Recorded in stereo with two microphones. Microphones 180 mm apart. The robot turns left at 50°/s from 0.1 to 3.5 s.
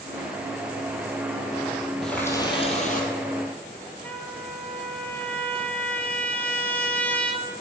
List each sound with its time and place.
2.0 s a running tap: 175° left, 2 m; by 3.1 s 125° left, 2 m
4.0 s a trumpet: 10° left (ahead or behind), 1.2 m